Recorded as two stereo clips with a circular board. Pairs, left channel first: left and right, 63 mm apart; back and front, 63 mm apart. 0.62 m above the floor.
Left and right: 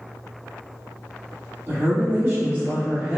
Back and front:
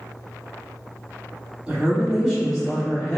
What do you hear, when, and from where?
1.7 s a woman speaking: 60° right, 1.4 m; by 3.2 s 125° right, 1.2 m